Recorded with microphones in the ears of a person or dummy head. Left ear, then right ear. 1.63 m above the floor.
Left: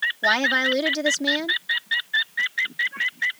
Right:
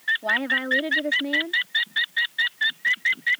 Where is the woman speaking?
85° left.